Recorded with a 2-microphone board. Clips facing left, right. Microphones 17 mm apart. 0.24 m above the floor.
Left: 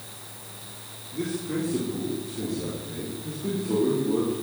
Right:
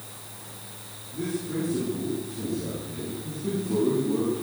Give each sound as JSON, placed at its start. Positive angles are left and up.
{"t": 1.1, "sound": "a man speaking", "side_deg": 70, "distance_m": 4.5}